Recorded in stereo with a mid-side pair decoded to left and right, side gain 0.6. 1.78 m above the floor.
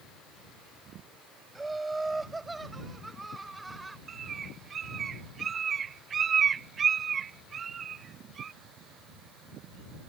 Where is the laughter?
10° right; by 4.0 s 15° right.